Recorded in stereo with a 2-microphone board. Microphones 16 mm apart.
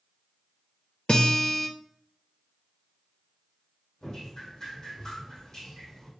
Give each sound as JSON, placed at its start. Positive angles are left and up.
{"t": 1.1, "sound": "a guitar", "side_deg": 55, "distance_m": 0.7}
{"t": 4.0, "sound": "dripping", "side_deg": 40, "distance_m": 1.7}